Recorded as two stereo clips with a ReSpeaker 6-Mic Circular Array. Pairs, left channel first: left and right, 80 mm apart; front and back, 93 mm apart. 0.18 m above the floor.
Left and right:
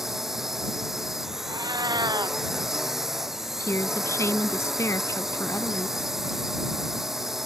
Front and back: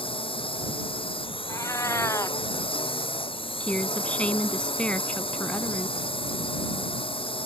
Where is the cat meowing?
60° right.